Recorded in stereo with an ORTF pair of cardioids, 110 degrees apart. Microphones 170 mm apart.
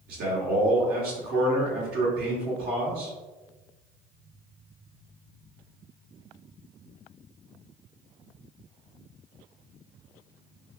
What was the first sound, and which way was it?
A man speaking, 65° right.